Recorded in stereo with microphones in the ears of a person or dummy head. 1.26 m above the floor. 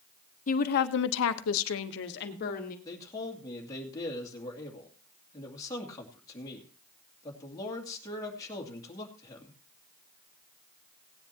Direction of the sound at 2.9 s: 20° left (ahead or behind).